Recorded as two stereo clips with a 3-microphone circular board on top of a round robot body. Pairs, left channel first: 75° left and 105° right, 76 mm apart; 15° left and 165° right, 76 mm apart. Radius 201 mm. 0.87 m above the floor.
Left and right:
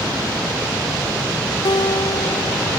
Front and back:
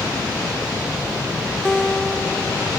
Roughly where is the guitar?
Left.